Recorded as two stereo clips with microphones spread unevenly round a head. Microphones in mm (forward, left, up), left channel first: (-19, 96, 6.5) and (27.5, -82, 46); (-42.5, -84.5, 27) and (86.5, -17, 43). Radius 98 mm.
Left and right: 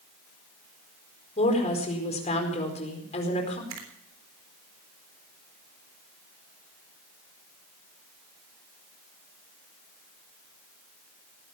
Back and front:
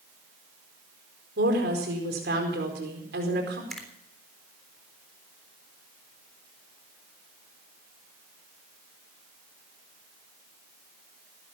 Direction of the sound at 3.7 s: 65° right.